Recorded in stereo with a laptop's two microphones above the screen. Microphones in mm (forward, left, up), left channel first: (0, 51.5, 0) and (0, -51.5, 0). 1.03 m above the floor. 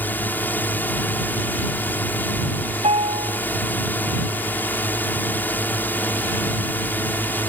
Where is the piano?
80° right.